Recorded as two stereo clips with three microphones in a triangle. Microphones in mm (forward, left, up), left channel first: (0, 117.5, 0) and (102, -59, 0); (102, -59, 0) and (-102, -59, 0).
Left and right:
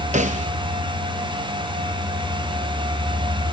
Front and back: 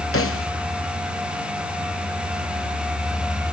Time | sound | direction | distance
0.1 | a snare drum | straight ahead | 0.9 m